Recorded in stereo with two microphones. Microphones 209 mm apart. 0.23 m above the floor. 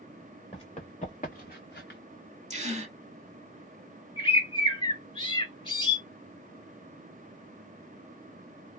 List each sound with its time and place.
0.5 s running footsteps: 25° left (ahead or behind), 1.7 m; by 2.0 s 60° left (ahead or behind), 1.4 m
2.5 s a gasp: 35° right (ahead or behind), 0.8 m
4.2 s a bird: 25° left (ahead or behind), 0.6 m